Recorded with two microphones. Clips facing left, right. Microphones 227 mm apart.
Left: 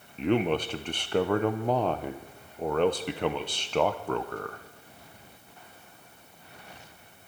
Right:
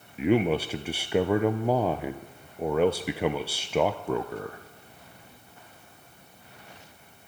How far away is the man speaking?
About 0.5 m.